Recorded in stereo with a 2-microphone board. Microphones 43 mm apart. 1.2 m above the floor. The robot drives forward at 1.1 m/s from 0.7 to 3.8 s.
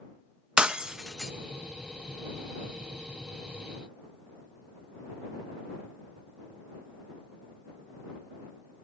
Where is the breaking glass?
25° right (ahead or behind), 0.6 m; by 1.3 s 10° right (ahead or behind), 1.2 m.